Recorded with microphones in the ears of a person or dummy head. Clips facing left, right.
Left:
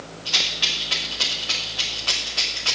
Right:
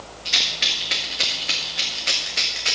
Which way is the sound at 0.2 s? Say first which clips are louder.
Right 1 dB; 15° right (ahead or behind).